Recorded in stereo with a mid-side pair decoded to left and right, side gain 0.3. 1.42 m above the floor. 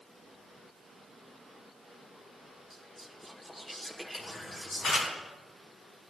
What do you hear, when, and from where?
2.7 s whispering: 10° left, 1.1 m
4.1 s a camera shutter: 70° left, 4 m